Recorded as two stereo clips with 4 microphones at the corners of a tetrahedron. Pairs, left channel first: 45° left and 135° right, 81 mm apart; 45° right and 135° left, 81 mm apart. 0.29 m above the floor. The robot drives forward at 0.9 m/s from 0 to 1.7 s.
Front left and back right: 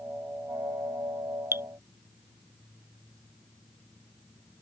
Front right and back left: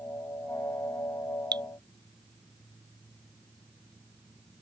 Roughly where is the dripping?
Behind.